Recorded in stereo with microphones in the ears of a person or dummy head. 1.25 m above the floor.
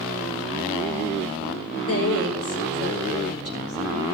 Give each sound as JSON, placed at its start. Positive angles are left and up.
{"t": 1.9, "sound": "a woman speaking", "side_deg": 70, "distance_m": 1.5}